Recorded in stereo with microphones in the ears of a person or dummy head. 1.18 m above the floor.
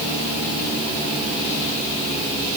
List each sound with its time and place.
Only background noise.